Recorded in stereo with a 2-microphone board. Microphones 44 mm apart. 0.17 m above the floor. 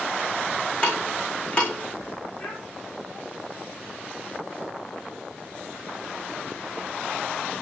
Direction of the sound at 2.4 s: 35° left (ahead or behind).